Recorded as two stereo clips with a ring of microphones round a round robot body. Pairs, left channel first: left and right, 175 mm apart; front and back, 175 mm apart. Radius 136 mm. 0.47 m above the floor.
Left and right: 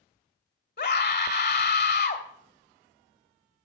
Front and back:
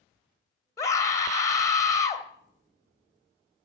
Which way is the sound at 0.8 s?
70° left.